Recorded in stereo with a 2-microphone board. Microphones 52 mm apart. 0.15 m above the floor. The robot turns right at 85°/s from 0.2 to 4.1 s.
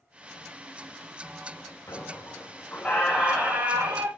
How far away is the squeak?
About 3 m.